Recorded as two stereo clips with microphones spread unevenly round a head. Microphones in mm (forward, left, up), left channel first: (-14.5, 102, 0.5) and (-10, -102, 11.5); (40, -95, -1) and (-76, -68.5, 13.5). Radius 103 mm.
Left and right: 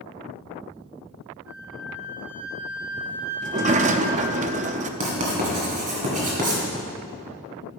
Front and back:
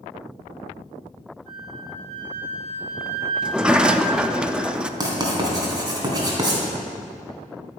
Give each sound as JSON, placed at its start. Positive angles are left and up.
{"t": 1.5, "sound": "a flute", "azimuth_deg": -170, "distance_m": 1.2}
{"t": 3.4, "sound": "a sliding door", "azimuth_deg": -120, "distance_m": 0.5}
{"t": 5.0, "sound": "writing", "azimuth_deg": -140, "distance_m": 3.0}